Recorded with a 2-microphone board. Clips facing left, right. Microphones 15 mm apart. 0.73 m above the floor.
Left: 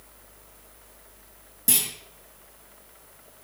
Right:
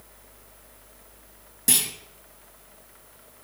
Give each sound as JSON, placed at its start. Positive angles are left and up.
{"t": 1.7, "sound": "a clunk", "side_deg": -20, "distance_m": 1.4}